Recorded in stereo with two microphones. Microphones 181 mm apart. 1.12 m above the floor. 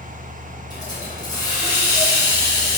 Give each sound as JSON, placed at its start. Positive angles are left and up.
{"t": 0.7, "sound": "a hiss", "side_deg": 20, "distance_m": 1.0}